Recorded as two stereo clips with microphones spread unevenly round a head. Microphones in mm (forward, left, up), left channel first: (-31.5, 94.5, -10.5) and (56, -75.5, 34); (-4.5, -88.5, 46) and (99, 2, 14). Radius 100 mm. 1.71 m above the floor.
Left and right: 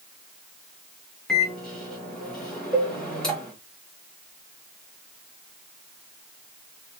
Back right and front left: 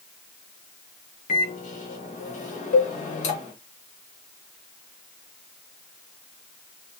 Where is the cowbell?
140° right, 0.8 m.